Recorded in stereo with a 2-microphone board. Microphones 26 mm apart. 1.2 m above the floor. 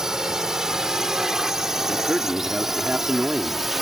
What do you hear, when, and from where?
0.0 s a drone: 20° right (ahead or behind); by 3.8 s 10° right (ahead or behind)
1.9 s a man speaking: 45° right (ahead or behind)